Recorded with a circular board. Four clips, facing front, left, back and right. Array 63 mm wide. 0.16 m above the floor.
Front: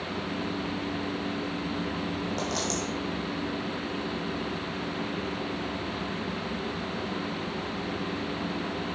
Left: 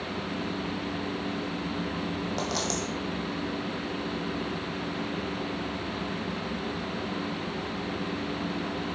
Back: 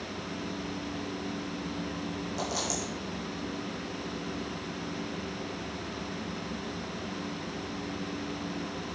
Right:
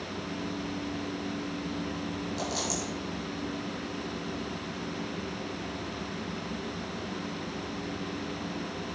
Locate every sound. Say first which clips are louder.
2.4 s a dropped coin: left 2 dB, front 3 dB; 65° left, 2.5 m